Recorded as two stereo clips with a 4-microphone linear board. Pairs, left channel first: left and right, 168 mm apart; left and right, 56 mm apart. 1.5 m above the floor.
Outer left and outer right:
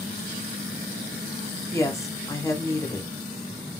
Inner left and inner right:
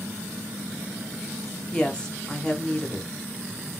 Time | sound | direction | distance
1.7 | a woman speaking | 15° left (ahead or behind) | 0.9 m